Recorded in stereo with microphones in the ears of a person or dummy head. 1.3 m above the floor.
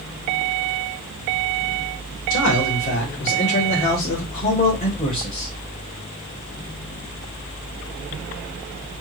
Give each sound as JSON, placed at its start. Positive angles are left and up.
{"t": 2.3, "sound": "a man speaking", "side_deg": 70, "distance_m": 2.0}